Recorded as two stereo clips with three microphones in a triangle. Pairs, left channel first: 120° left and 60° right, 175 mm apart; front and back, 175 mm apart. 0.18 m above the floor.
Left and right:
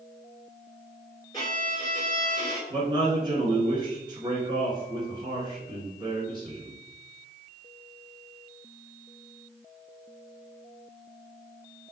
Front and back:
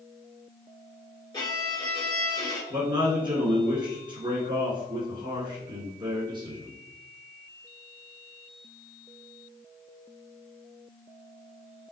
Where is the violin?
60° left, 2 m.